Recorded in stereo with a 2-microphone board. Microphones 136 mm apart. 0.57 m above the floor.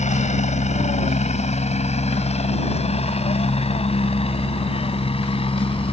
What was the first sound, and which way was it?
A helicopter, 60° left (ahead or behind).